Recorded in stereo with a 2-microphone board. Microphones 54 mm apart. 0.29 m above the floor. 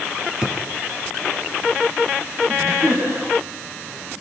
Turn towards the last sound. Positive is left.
turn(degrees=-70)  # may be behind; listen again after turning